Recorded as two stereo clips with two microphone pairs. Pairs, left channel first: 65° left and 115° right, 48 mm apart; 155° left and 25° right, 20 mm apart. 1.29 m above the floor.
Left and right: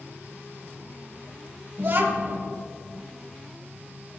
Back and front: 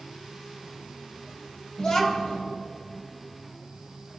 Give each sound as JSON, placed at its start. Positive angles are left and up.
{"t": 1.8, "sound": "a child speaking", "azimuth_deg": -155, "distance_m": 1.3}